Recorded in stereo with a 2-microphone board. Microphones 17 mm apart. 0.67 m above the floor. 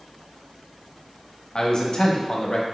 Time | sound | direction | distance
1.6 | a man speaking | 40° left (ahead or behind) | 0.6 m